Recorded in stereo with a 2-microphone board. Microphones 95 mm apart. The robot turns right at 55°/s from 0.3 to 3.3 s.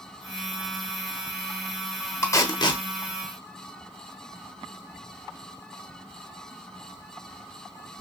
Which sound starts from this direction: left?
Tape being pulled, at 2.2 s.